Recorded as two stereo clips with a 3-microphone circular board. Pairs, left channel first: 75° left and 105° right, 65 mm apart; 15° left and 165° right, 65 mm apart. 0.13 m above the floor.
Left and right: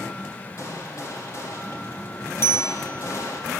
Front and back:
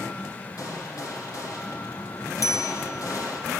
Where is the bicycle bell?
30° left, 2 m.